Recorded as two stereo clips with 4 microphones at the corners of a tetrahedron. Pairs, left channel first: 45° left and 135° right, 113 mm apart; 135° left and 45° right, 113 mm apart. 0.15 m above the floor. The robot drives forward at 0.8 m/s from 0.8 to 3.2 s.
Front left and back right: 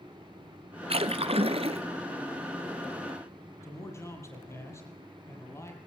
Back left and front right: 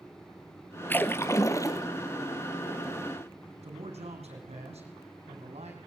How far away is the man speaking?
About 6.5 m.